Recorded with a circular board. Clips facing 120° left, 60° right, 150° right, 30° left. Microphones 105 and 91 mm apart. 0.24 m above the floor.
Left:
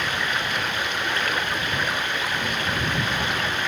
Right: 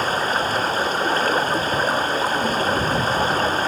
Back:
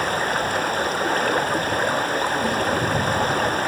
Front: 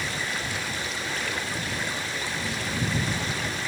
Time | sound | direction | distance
0.0 | running water | 115° right | ?